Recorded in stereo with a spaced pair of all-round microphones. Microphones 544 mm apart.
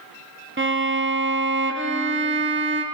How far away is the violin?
About 0.6 m.